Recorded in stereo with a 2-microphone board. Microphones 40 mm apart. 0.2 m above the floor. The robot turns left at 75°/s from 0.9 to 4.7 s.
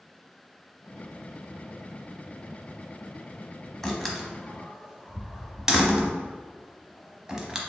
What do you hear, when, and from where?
3.8 s a door slam: 5° left (ahead or behind), 0.8 m; by 7.6 s 15° right (ahead or behind), 0.8 m